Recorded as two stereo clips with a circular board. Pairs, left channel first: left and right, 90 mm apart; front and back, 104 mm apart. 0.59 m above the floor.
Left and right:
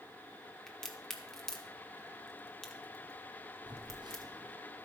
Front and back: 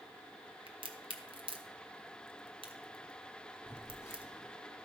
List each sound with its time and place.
0.7 s a crack: 170° left, 1.0 m
3.7 s a phone buzzing: 70° right, 1.9 m